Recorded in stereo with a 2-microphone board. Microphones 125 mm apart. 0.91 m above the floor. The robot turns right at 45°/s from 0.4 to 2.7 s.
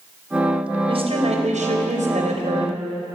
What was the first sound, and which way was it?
A woman speaking, 135° right.